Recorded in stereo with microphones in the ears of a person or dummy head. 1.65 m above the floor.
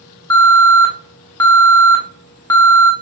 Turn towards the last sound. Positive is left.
turn(degrees=15)  # may be behind; listen again after turning